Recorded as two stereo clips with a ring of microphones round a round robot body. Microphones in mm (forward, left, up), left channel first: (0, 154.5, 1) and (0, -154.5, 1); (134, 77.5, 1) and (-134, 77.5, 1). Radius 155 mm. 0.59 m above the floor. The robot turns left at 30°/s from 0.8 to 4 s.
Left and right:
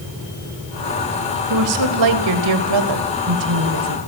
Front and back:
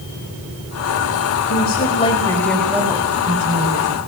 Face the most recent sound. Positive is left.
turn(degrees=-130)